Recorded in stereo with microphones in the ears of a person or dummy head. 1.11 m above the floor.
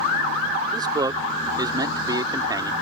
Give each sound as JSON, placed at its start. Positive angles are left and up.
{"t": 0.7, "sound": "a man speaking", "side_deg": -15}